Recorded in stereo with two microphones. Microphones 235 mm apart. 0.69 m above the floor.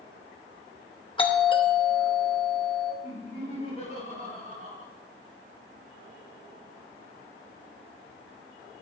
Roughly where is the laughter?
Left.